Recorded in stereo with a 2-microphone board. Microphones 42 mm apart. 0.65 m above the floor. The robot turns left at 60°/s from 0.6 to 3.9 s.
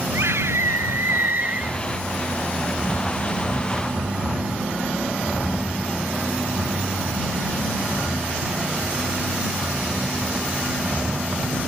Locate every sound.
0.1 s a scream: 85° right; by 1.8 s 160° right